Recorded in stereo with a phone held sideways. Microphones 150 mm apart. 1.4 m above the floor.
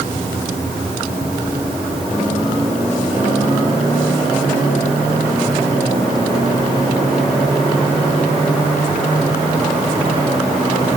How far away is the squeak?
I don't hear a squeak.